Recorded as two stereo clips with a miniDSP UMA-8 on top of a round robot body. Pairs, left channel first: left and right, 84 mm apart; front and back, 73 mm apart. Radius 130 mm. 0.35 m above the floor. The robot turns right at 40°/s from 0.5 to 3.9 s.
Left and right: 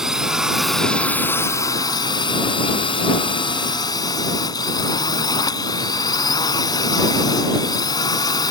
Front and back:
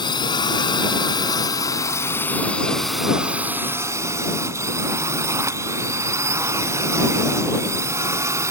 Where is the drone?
5° right; by 8.5 s 130° left.